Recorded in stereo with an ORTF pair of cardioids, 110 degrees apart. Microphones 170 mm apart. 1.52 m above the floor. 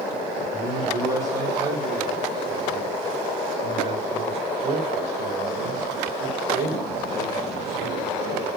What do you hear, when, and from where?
0.5 s a man speaking: 20° right, 5.5 m; by 8.5 s 70° right, 4.5 m